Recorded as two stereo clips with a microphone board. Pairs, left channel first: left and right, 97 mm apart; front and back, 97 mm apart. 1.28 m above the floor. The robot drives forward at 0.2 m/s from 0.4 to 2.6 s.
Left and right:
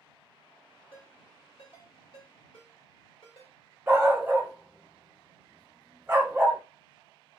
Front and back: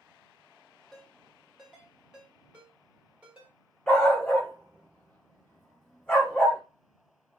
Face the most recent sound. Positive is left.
turn(degrees=-60)